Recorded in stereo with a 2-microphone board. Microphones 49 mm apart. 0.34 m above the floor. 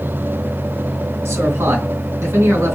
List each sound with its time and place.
1.2 s a man speaking: 70° right (ahead or behind), 3 m